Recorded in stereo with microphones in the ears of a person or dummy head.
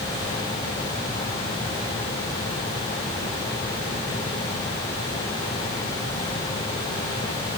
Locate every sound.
Only background noise.